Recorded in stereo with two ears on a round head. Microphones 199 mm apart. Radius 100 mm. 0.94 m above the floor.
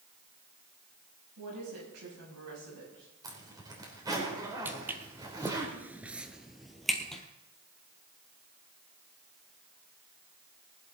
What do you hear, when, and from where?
1.4 s a woman speaking: 80° right, 6.5 m; by 4.2 s 65° right (ahead or behind), 8.5 m
3.2 s a zipper: 20° right (ahead or behind), 3.5 m
4.7 s footsteps: 10° right (ahead or behind), 1.7 m; by 7.2 s centre (ahead or behind), 1.7 m